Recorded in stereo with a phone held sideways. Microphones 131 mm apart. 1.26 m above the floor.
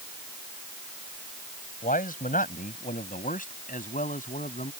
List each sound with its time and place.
1.8 s a man speaking: 85° left; by 4.7 s 75° left (ahead or behind)